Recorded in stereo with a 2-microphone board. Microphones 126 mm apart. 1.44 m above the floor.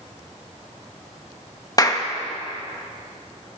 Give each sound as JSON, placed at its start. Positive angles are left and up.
{"t": 1.8, "sound": "a clap", "side_deg": 30, "distance_m": 2.0}